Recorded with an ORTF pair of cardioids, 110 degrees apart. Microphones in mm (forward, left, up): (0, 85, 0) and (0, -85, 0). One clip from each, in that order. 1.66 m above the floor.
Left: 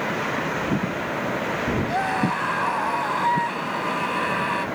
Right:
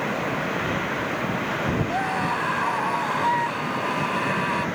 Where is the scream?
15° left; by 4.7 s straight ahead.